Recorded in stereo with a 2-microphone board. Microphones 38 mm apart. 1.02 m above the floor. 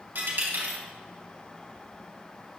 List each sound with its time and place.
0.1 s a dropped coin: 70° right (ahead or behind), 2.5 m